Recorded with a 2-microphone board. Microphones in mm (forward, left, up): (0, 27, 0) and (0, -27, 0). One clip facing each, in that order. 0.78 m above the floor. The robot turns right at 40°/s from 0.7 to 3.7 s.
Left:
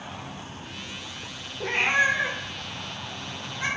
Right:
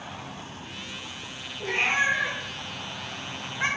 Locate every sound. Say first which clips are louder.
1.6 s a cat meowing: left 2 dB; 45° left (ahead or behind), 0.6 m; by 3.7 s 35° right (ahead or behind), 0.6 m